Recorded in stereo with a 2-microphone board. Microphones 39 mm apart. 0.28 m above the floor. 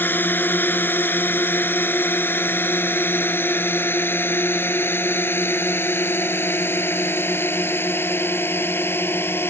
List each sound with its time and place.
0.0 s a drone: 60° left (ahead or behind); by 9.5 s 75° left (ahead or behind)